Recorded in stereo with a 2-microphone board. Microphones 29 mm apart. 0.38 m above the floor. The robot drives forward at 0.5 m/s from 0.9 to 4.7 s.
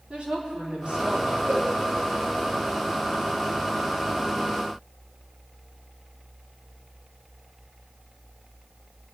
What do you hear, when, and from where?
0.1 s a woman speaking: 40° right (ahead or behind), 3.5 m
1.5 s a cowbell: 85° right, 4.5 m